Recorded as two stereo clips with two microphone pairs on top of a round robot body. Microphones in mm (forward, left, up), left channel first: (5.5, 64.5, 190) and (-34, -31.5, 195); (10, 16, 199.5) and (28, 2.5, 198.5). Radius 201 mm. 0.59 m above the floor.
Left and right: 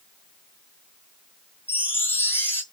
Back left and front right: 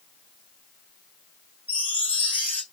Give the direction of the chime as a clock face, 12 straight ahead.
7 o'clock.